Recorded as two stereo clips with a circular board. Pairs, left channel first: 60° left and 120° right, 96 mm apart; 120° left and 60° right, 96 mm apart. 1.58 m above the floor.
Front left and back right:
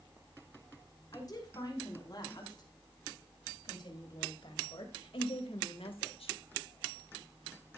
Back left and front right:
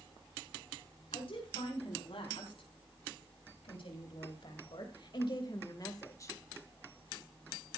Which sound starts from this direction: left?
A woman speaking, at 1.1 s.